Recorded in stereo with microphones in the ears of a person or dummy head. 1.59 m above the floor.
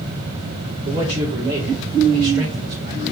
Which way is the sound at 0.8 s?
45° right (ahead or behind).